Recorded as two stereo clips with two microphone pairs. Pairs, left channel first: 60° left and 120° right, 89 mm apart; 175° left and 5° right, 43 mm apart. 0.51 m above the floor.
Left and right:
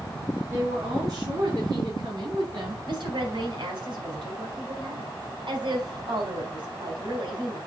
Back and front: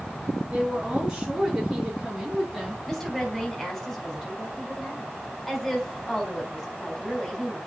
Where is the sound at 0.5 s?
70° right, 4.5 m; by 2.8 s 90° right, 4 m.